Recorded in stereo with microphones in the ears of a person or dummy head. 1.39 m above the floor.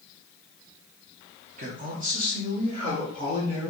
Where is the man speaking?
35° right (ahead or behind), 0.7 m; by 3.7 s 30° right (ahead or behind), 1.8 m.